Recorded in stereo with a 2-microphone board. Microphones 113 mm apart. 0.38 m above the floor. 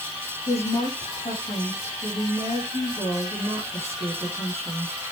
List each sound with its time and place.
0.5 s a woman speaking: 70° left (ahead or behind), 8 m